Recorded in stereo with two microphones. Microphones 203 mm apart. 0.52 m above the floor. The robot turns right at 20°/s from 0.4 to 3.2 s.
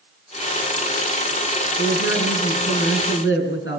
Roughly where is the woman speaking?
Left.